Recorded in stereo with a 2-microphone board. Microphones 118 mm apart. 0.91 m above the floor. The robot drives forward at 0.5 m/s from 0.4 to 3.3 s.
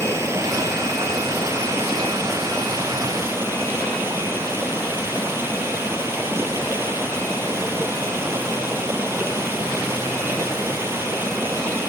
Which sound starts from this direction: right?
Running water, at 0.0 s.